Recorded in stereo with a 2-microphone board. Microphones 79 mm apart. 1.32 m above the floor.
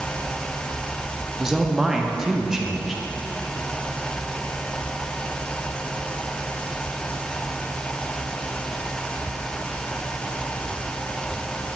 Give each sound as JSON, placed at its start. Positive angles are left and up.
{"t": 1.4, "sound": "a man speaking", "side_deg": -5, "distance_m": 0.6}